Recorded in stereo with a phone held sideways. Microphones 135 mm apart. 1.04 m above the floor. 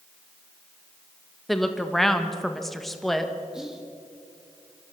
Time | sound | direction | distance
1.5 | a woman speaking | centre (ahead or behind) | 1.4 m
3.5 | whispering | 5° right (ahead or behind) | 2 m